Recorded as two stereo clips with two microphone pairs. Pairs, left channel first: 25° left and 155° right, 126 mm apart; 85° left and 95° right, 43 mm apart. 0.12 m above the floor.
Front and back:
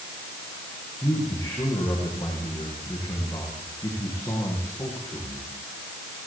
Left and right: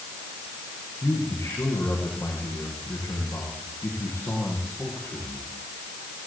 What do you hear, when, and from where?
1.0 s a man speaking: 95° left, 9 m